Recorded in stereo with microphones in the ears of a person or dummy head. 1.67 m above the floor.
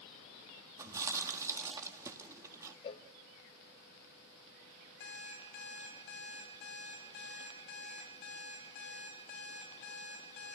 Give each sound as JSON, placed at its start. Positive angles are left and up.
{"t": 0.8, "sound": "chewing", "side_deg": -15, "distance_m": 1.9}
{"t": 2.8, "sound": "a cowbell", "side_deg": 35, "distance_m": 0.8}
{"t": 5.0, "sound": "an alarm clock", "side_deg": 75, "distance_m": 5.5}